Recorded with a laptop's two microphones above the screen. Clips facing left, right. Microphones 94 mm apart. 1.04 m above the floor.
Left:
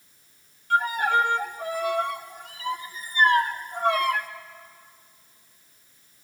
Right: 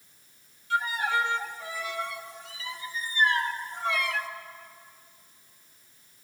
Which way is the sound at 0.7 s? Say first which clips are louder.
Left 5 dB; 50° left (ahead or behind).